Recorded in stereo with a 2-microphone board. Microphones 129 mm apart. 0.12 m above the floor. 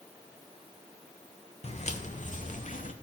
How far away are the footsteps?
About 1.4 m.